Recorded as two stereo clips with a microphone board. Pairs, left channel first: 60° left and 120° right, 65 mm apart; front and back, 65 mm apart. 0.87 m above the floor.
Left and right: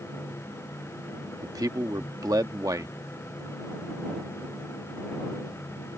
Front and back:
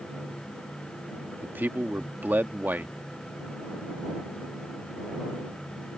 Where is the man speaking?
120° right.